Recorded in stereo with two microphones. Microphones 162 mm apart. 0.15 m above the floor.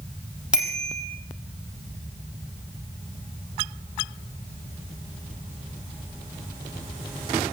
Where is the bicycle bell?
5° right (ahead or behind), 4 m.